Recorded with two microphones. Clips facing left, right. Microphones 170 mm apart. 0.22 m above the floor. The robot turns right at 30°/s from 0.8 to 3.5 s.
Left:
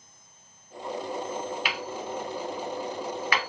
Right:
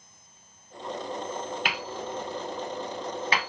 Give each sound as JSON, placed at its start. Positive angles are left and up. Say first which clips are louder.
{"t": 1.6, "sound": "hammering", "louder": "even", "side_deg": -50, "distance_m": 0.8}